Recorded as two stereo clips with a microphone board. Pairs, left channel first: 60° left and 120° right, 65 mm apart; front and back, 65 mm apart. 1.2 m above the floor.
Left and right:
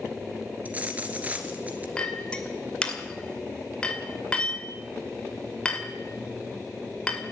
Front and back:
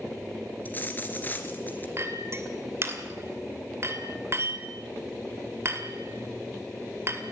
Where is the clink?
135° left, 2.5 m.